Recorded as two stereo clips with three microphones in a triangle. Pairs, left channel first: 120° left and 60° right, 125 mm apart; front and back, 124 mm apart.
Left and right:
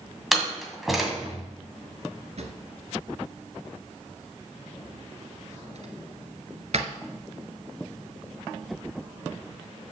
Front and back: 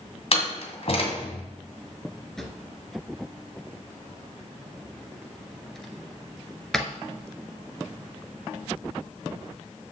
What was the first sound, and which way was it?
A door slam, 30° left.